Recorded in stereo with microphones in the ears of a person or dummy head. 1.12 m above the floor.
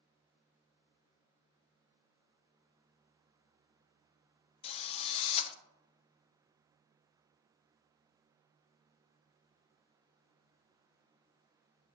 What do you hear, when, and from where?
4.6 s a drill: 35° left (ahead or behind), 0.8 m